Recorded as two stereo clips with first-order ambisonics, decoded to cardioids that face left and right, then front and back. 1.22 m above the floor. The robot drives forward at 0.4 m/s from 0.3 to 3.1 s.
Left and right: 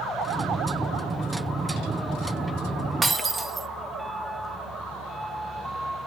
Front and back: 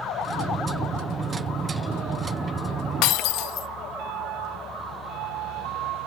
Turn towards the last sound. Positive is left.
turn(degrees=-15)